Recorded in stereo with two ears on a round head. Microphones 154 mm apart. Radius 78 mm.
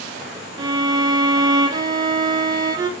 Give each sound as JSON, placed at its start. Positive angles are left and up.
{"t": 0.6, "sound": "a violin", "side_deg": -25, "distance_m": 0.5}